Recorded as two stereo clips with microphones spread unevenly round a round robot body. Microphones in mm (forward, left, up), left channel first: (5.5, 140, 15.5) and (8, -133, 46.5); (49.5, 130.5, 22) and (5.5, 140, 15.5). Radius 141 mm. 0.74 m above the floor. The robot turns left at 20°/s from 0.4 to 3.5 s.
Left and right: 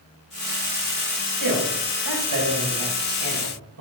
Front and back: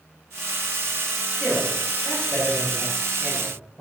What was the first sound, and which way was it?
A man speaking, 70° right.